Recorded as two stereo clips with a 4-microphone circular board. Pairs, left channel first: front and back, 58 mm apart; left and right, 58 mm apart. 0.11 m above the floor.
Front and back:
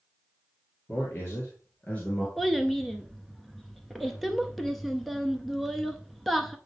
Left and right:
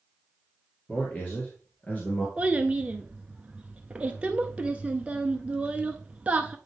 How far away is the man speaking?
About 2.5 m.